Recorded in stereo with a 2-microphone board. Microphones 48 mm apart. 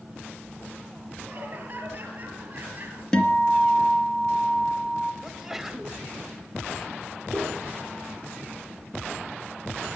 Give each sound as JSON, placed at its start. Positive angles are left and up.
{"t": 1.3, "sound": "laughter", "side_deg": -35, "distance_m": 5.0}
{"t": 3.1, "sound": "a guitar", "side_deg": 15, "distance_m": 1.9}
{"t": 5.2, "sound": "a sneeze", "side_deg": -10, "distance_m": 1.1}
{"t": 7.3, "sound": "a piano", "side_deg": -15, "distance_m": 6.0}